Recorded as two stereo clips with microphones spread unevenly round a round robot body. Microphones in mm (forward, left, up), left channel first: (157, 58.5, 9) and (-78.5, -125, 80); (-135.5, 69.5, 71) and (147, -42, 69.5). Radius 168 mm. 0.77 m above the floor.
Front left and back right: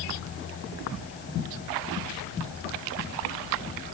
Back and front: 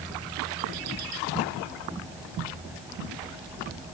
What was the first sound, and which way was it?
Only background noise.